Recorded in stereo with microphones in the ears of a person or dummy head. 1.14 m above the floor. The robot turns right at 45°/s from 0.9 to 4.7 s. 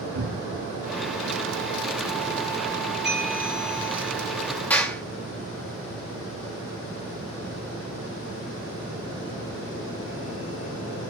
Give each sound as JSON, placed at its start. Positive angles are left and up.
{"t": 0.1, "sound": "a cupboard door", "side_deg": -75, "distance_m": 2.5}
{"t": 3.0, "sound": "a bell", "azimuth_deg": -10, "distance_m": 5.5}
{"t": 4.7, "sound": "a clap", "side_deg": 10, "distance_m": 2.5}